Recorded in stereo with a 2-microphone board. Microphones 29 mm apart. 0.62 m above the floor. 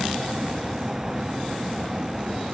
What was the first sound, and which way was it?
A vehicle, 20° right (ahead or behind).